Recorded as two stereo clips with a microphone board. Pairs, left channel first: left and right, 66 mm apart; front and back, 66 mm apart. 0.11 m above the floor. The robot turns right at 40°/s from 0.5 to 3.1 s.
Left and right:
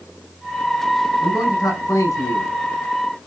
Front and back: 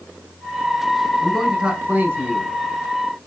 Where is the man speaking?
85° left, 6 m; by 2.5 s 135° left, 6 m.